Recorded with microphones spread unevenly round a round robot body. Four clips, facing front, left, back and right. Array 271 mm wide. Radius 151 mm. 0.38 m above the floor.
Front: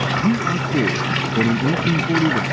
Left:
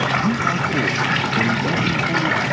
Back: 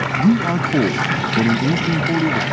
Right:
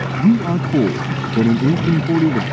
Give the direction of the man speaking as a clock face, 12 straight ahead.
4 o'clock.